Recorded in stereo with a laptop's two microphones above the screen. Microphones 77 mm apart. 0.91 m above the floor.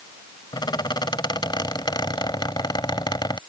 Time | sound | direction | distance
0.5 | a squeak | 75° left (ahead or behind) | ?